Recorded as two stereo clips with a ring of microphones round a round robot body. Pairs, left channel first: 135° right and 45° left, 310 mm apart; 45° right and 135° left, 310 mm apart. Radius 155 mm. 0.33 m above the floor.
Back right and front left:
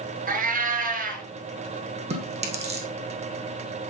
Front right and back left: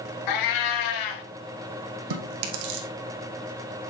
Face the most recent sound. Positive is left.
turn(degrees=115)